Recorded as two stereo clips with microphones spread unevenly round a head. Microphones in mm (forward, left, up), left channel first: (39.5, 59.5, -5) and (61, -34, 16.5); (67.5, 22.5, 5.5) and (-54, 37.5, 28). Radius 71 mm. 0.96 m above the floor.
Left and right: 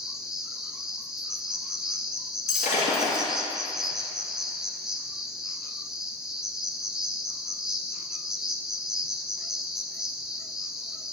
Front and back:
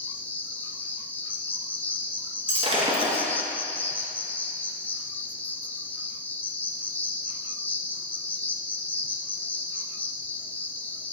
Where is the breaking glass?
130° left, 2.5 m.